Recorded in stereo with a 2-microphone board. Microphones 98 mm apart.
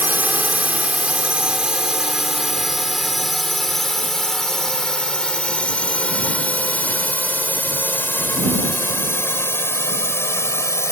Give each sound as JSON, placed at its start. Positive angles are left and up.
{"t": 0.0, "sound": "a drone", "side_deg": -20}